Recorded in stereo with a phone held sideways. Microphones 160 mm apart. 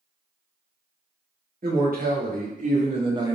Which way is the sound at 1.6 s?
60° right (ahead or behind).